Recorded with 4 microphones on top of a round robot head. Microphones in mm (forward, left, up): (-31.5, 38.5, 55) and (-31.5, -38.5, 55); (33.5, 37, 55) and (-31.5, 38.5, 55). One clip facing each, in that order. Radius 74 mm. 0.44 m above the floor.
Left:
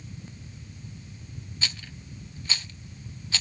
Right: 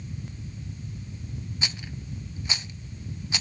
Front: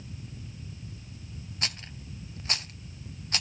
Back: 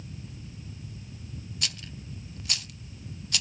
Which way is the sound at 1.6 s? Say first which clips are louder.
Left 1 dB, front 2 dB; 30° right.